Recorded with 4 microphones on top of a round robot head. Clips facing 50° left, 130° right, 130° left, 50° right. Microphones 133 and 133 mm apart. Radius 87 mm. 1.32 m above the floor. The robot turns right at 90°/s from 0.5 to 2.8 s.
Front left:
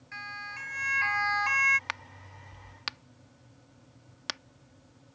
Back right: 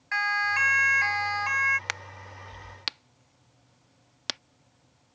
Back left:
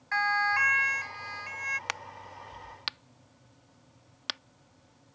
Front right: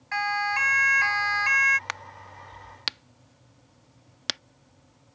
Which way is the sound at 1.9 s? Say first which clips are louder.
Back right 2 dB, front right 1 dB; 160° right.